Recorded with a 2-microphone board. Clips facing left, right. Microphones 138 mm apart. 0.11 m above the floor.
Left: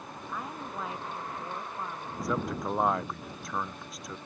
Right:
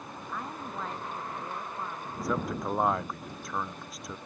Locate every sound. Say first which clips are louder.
0.3 s a woman speaking: even; 5° left (ahead or behind)
2.2 s a man speaking: even; centre (ahead or behind)